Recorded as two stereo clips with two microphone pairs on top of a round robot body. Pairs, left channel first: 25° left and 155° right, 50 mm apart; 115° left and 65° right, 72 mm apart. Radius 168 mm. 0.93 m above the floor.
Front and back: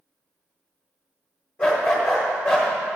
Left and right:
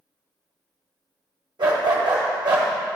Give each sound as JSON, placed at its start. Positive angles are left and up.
{"t": 1.6, "sound": "a dog barking", "azimuth_deg": -35, "distance_m": 1.4}